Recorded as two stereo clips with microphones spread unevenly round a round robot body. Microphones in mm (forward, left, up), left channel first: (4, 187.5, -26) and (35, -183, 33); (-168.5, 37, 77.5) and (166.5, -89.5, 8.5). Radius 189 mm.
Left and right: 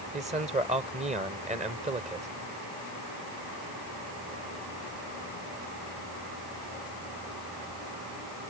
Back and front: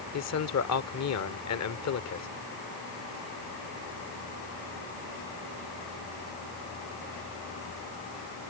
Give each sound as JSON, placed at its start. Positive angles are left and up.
{"t": 0.1, "sound": "a man speaking", "azimuth_deg": -160}